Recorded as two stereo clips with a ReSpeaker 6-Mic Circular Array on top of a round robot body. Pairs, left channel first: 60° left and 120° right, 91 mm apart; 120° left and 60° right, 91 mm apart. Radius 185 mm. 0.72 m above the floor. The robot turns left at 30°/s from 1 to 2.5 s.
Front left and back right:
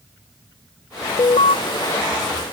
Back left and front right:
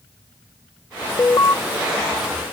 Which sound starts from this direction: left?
An alarm, at 1.2 s.